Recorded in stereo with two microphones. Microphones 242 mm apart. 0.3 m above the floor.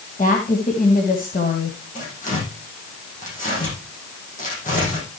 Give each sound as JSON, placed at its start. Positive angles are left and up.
{"t": 0.2, "sound": "a woman speaking", "side_deg": 35, "distance_m": 2.5}
{"t": 1.9, "sound": "tearing paper", "side_deg": 35, "distance_m": 8.0}